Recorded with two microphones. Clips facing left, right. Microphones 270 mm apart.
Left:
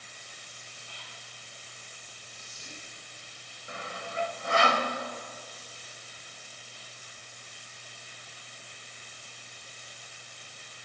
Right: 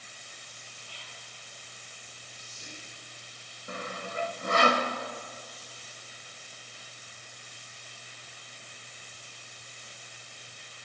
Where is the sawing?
45° right (ahead or behind), 0.7 m.